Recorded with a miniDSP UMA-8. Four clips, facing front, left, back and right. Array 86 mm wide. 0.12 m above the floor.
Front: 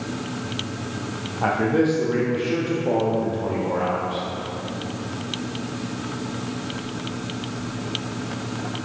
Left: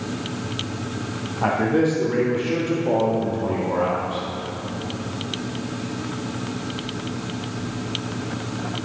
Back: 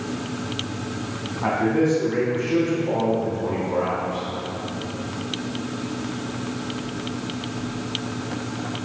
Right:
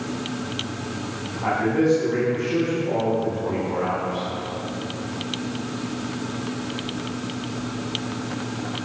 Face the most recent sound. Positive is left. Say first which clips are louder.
# left 1 dB, front 1 dB
turn(degrees=45)